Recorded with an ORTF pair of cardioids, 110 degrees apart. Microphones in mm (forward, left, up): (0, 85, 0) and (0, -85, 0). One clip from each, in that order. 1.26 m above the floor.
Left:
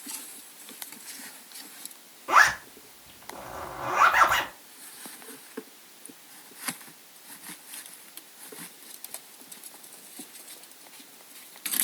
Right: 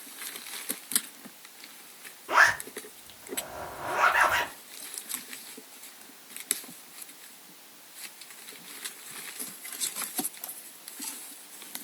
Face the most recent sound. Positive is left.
turn(degrees=65)